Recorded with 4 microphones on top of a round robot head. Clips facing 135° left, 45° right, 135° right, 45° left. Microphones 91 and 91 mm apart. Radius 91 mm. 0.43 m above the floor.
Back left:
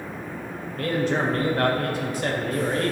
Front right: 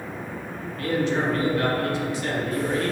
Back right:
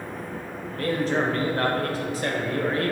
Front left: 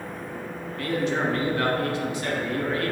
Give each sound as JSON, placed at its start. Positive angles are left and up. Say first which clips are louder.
{"t": 0.8, "sound": "a man speaking", "louder": "even, back right 1 dB", "azimuth_deg": 175, "distance_m": 2.0}